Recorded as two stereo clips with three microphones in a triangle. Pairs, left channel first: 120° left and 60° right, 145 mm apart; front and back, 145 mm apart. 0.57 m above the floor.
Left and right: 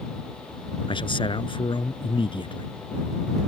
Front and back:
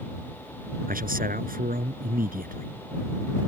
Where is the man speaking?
175° left.